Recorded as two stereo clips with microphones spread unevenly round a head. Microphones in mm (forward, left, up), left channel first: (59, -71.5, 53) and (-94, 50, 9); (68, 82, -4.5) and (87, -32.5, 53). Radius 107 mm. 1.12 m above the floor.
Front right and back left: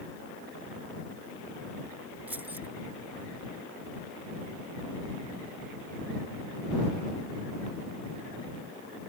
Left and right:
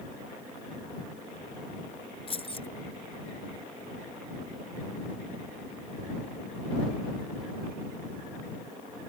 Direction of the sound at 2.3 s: 60° left.